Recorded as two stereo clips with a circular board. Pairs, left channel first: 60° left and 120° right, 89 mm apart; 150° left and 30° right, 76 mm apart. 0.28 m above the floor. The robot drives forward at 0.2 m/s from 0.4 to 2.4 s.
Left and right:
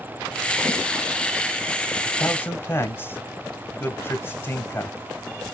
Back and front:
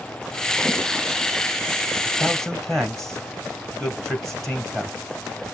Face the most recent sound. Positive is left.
turn(degrees=70)